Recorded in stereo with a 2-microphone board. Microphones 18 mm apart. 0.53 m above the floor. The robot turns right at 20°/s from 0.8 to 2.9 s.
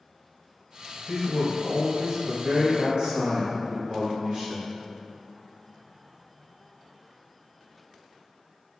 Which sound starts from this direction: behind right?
A man speaking, at 1.1 s.